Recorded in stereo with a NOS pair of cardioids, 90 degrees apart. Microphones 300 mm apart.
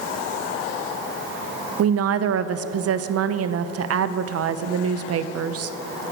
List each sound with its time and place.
1.8 s a woman speaking: 55° right, 0.8 m